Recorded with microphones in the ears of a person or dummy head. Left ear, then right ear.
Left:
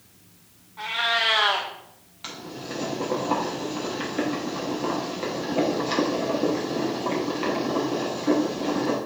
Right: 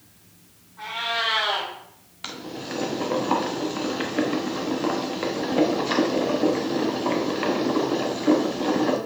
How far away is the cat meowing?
About 0.9 m.